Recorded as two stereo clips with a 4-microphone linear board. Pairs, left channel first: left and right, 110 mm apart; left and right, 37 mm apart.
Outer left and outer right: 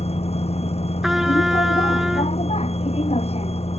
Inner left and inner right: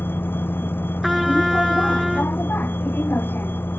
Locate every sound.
0.0 s a vehicle: 70° left (ahead or behind)
1.0 s a trumpet: 5° right (ahead or behind)